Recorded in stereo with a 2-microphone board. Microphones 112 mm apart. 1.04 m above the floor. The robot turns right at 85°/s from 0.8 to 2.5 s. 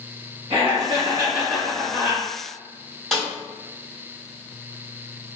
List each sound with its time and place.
0.5 s laughter: 50° right, 1.1 m; by 2.2 s 70° left, 1.1 m
3.1 s a snare drum: centre (ahead or behind), 1.5 m